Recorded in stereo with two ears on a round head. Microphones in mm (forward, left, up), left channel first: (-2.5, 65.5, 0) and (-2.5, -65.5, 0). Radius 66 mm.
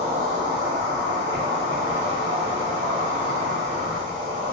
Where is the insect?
45° right (ahead or behind), 1.2 m.